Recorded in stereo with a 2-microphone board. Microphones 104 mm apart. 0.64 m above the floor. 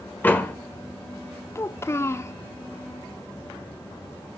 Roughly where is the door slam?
Centre.